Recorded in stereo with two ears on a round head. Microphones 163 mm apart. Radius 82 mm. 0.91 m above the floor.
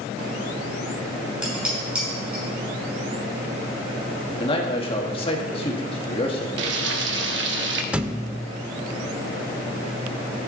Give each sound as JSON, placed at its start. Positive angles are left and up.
{"t": 1.4, "sound": "dishes clattering", "side_deg": -5, "distance_m": 5.5}
{"t": 4.4, "sound": "a man speaking", "side_deg": 30, "distance_m": 1.7}
{"t": 6.6, "sound": "frying", "side_deg": -70, "distance_m": 1.0}
{"t": 7.9, "sound": "a thud", "side_deg": -5, "distance_m": 0.6}